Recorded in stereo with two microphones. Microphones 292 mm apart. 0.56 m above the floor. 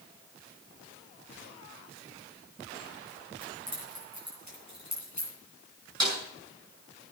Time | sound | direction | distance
3.4 | keys jangling | 70° right (ahead or behind) | 7.5 m
6.0 | a snare drum | 75° right (ahead or behind) | 9 m